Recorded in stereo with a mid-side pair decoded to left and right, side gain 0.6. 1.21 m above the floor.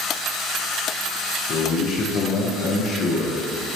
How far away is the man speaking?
About 0.7 m.